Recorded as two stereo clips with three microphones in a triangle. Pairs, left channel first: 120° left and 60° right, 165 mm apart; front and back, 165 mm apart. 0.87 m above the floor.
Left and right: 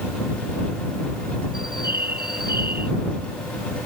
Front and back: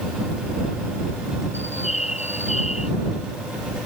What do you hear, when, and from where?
1.5 s a bird: 45° right